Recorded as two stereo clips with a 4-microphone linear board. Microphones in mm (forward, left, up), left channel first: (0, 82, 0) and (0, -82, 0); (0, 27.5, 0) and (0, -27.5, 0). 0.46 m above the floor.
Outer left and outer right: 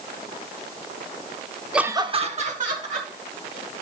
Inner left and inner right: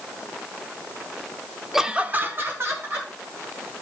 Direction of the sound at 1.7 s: 5° right (ahead or behind).